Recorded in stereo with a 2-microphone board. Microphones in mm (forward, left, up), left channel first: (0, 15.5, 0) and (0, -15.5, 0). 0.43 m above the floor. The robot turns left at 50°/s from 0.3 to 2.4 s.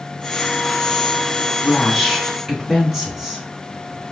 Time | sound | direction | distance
1.6 | a woman speaking | 35° left | 3 m